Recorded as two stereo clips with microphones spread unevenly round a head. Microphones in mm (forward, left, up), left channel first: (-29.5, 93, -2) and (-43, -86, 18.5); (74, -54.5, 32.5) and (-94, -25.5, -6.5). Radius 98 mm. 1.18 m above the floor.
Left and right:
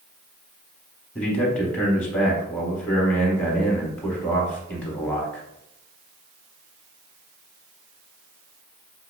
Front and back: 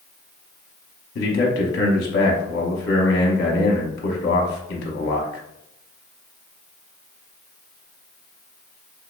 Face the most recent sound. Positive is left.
turn(degrees=10)